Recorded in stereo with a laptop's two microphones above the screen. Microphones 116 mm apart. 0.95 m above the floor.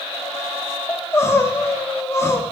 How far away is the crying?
About 0.6 m.